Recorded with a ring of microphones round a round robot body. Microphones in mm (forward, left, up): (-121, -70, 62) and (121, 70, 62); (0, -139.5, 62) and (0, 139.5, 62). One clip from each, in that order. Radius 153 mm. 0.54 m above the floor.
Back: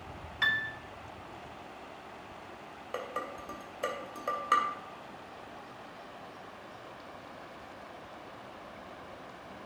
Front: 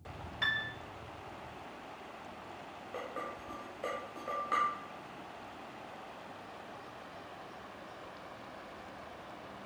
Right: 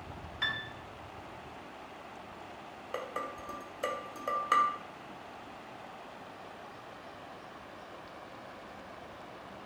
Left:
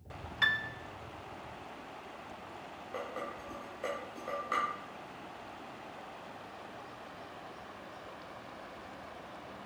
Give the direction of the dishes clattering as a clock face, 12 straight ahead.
4 o'clock.